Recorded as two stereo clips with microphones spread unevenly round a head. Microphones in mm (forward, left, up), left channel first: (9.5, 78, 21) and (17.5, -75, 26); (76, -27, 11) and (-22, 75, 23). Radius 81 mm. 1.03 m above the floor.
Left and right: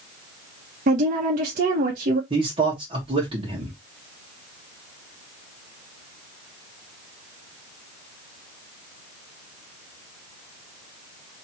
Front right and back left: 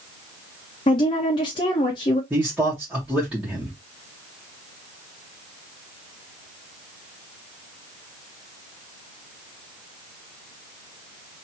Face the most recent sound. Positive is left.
turn(degrees=-140)